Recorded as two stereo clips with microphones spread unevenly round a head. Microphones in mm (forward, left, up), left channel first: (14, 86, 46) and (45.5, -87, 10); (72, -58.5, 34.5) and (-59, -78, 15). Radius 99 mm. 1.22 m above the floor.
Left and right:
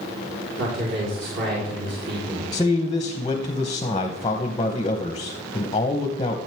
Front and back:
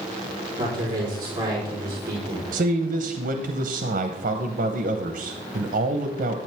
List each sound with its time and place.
0.6 s a man speaking: 115° right, 4 m
2.5 s a man speaking: 170° left, 0.8 m